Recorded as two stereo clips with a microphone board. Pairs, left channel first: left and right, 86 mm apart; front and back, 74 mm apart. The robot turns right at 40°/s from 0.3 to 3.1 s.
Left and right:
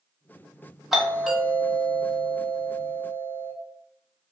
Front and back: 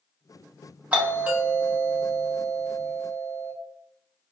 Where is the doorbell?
170° right, 0.6 m; by 3.5 s 85° right, 0.6 m.